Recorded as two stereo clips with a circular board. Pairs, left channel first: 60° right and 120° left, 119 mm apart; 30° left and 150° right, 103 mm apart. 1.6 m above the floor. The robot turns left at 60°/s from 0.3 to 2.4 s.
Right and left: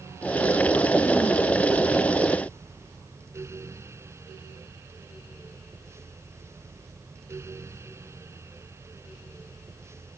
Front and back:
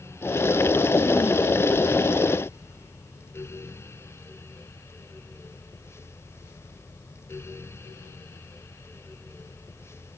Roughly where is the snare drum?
No snare drum in this recording.